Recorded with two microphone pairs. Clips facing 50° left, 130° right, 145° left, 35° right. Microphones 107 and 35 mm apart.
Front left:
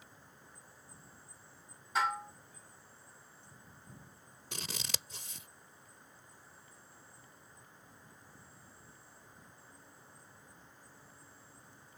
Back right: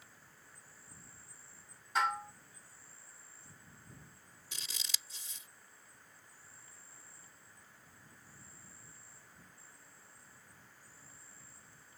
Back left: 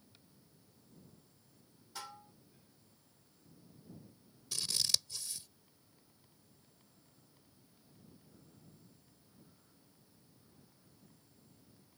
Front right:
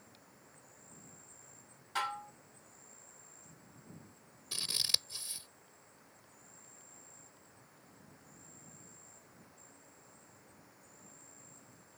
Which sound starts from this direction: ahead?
An insect, at 0.0 s.